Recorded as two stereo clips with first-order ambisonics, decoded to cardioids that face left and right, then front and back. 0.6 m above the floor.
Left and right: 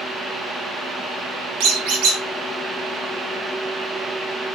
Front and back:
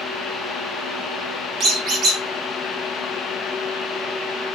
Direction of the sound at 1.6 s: 115° right.